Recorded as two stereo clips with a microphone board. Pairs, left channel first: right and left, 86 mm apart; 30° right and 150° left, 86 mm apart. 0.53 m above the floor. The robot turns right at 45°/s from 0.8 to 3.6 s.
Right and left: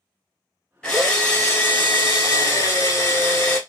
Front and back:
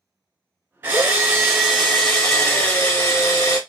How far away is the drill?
About 1.4 m.